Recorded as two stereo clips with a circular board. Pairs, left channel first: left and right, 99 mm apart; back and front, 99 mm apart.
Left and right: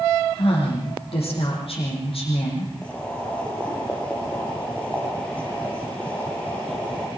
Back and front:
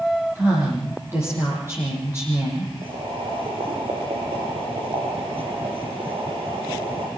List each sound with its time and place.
0.3 s a woman speaking: 65° left, 8 m
2.8 s boiling: 15° left, 4.5 m